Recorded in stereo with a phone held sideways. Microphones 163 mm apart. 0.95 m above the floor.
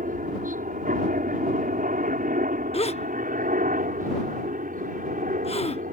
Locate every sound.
0.0 s a helicopter: 55° right (ahead or behind)
2.7 s a gasp: 40° left (ahead or behind)